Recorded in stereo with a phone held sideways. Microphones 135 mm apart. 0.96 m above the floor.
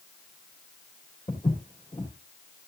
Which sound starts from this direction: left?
Footsteps, at 1.3 s.